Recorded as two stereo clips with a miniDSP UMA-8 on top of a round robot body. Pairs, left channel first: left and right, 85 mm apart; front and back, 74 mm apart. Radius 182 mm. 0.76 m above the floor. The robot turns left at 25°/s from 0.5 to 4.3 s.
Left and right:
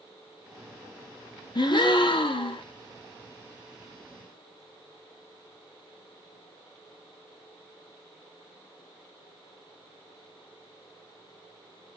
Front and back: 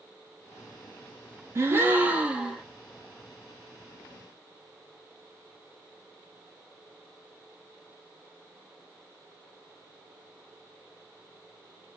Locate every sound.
1.6 s a gasp: 125° left, 1.1 m; by 2.6 s 100° left, 1.1 m